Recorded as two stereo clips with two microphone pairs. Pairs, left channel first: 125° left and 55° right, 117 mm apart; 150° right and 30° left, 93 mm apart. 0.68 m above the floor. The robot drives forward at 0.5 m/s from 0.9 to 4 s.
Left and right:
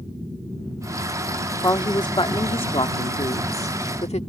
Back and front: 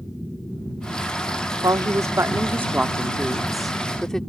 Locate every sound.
1.6 s a woman speaking: 70° left; by 4.2 s 130° left